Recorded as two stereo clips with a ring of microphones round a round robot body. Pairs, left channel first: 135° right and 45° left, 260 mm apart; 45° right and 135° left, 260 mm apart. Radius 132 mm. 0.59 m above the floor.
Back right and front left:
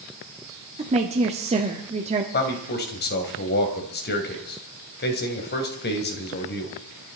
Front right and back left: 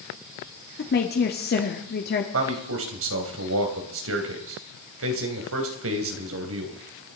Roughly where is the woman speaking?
Ahead.